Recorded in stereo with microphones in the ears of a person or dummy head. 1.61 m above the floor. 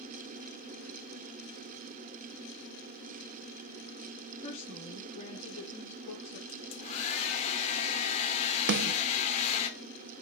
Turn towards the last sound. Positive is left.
turn(degrees=-55)  # may be behind; listen again after turning